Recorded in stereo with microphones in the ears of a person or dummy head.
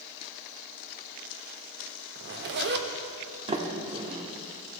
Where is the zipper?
60° right (ahead or behind), 0.8 m.